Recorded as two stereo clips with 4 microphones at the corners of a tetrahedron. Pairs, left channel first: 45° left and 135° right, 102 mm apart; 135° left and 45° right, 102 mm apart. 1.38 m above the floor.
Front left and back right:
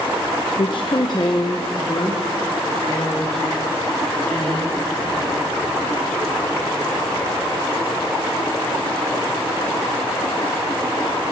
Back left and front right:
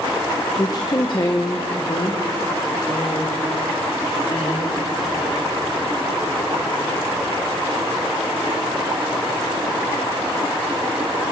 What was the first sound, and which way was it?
A woman speaking, 80° left.